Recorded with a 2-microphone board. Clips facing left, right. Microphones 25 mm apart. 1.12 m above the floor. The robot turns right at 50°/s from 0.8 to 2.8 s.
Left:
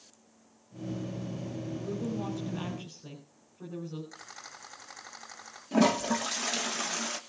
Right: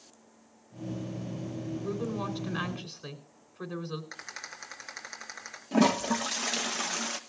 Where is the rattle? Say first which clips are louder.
Right 4 dB; 55° right (ahead or behind), 8 m.